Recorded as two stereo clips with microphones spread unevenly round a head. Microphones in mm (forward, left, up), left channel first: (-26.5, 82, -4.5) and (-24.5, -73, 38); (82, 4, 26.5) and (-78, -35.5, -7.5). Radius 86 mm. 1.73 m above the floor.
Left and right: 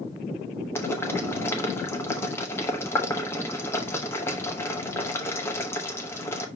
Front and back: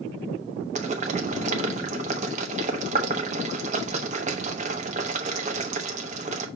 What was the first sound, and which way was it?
Boiling, straight behind.